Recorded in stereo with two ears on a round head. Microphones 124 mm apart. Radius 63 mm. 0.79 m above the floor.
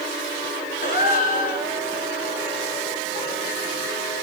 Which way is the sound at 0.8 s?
55° left (ahead or behind).